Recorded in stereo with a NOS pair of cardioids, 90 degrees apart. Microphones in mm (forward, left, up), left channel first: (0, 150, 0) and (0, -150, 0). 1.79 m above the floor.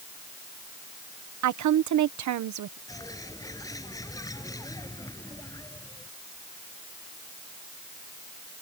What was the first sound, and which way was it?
A woman speaking, 65° right.